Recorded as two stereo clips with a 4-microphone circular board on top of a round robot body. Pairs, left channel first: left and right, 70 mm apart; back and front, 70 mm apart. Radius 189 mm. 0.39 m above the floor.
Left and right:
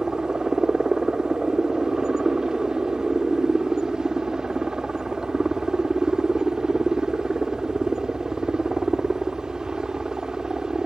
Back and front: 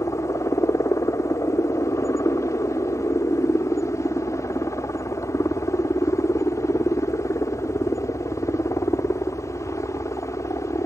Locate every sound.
0.0 s a helicopter: 165° right